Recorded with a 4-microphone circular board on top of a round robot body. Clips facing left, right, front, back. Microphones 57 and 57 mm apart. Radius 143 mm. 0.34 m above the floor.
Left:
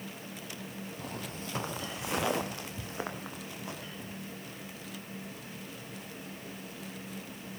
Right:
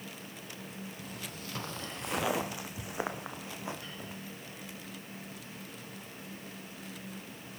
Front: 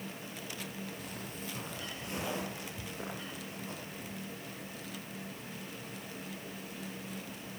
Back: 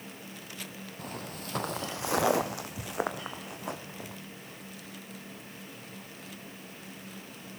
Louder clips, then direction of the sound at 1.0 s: Left 3 dB, back 3 dB; 135° left.